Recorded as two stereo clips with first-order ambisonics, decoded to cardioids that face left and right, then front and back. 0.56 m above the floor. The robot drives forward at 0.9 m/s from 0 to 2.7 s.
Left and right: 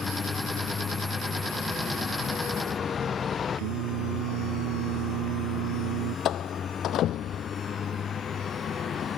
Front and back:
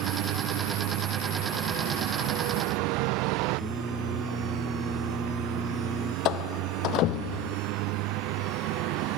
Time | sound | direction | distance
0.0 | a vehicle | 155° left | ?
3.6 | singing | 90° right | ?
6.2 | a door slam | 40° left | ?